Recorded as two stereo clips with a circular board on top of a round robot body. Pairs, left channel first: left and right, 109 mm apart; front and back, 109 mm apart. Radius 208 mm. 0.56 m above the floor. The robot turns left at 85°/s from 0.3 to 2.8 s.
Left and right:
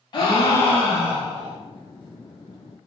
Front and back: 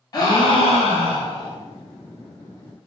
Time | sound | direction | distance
0.1 | a gasp | 50° left | 0.9 m